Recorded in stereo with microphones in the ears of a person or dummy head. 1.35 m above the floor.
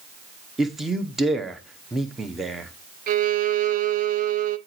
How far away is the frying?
No frying in this recording.